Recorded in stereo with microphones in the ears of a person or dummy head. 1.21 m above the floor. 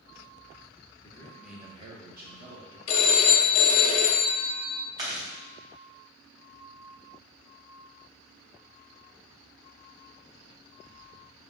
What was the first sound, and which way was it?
A man speaking, 30° left (ahead or behind).